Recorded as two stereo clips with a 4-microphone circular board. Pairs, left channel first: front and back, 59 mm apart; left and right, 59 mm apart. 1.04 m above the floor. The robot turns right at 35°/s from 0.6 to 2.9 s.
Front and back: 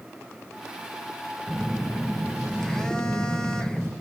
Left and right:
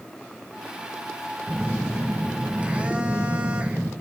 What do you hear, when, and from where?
1.5 s a phone buzzing: 115° right, 0.5 m; by 3.9 s 65° right, 0.5 m